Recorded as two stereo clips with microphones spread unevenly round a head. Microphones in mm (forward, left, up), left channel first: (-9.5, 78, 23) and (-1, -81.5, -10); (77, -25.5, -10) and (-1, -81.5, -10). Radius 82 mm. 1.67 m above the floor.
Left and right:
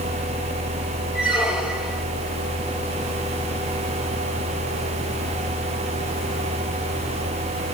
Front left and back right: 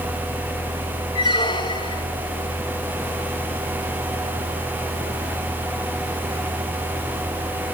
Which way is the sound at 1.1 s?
5° left.